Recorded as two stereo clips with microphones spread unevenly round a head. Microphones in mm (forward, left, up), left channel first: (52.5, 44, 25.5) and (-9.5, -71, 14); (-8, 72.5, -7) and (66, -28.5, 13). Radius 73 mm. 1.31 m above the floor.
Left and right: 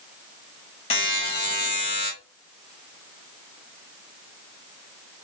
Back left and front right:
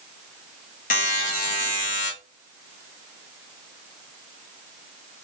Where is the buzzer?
115° left, 1.0 m.